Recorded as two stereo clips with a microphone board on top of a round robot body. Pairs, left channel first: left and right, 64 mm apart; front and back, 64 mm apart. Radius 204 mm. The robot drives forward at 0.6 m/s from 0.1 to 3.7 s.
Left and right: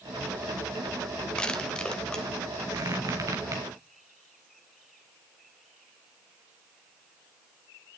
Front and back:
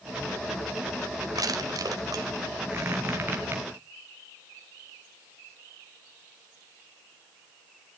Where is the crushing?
165° left, 2 m; by 2.3 s 170° left, 2.5 m.